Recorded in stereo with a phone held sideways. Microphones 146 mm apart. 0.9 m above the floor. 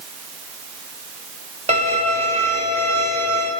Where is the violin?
50° right (ahead or behind), 2.5 m.